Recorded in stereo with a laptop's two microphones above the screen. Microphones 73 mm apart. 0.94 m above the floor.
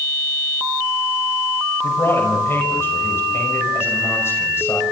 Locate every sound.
1.8 s a man speaking: 35° left (ahead or behind), 5.5 m